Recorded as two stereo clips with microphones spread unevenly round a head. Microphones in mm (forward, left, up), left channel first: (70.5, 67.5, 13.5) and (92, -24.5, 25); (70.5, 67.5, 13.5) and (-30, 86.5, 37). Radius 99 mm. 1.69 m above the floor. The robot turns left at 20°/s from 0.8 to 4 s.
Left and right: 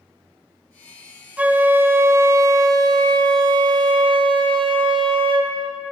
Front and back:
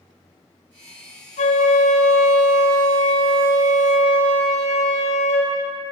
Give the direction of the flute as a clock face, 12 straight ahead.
12 o'clock.